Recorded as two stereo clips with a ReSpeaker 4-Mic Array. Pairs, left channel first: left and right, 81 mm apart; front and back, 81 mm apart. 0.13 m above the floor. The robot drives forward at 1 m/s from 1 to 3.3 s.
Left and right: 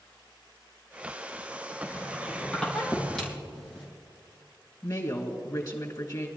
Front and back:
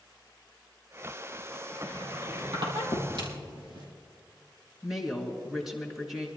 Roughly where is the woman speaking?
Left.